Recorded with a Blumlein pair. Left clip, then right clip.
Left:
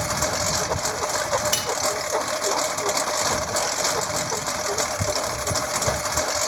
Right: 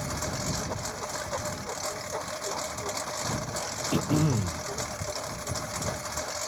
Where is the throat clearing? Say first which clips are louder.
Left 4 dB; 55° right.